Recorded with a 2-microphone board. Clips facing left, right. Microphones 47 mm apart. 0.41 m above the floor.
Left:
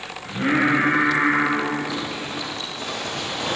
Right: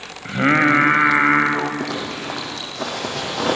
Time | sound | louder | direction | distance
0.2 | singing | right 4 dB | 50° right (ahead or behind) | 2 m
1.8 | a zipper | right 2 dB | 85° right | 6 m